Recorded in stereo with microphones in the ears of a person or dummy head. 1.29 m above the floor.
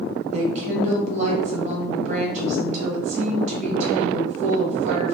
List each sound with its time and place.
0.3 s a woman speaking: 45° right (ahead or behind), 1.1 m